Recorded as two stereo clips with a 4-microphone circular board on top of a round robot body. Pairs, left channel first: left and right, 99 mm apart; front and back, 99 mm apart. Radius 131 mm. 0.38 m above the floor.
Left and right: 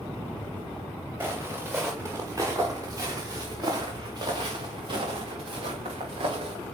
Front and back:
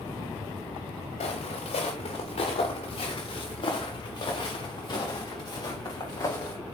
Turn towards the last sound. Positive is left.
turn(degrees=-65)